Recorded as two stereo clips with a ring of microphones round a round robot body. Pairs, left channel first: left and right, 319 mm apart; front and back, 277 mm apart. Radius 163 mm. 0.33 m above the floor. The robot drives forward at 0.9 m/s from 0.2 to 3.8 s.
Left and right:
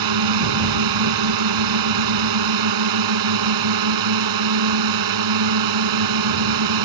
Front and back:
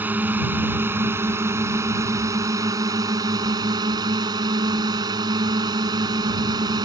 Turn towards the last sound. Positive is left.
turn(degrees=-105)